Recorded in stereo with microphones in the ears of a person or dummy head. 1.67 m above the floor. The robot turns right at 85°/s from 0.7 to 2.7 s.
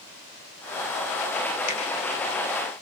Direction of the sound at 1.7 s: 35° left (ahead or behind).